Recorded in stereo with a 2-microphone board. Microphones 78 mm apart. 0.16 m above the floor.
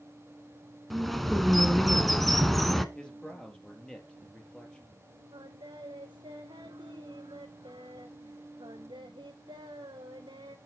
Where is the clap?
No clap in this recording.